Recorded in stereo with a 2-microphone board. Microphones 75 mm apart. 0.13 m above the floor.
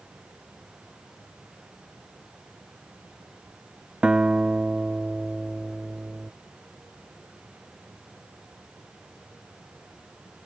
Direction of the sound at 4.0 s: 15° right (ahead or behind).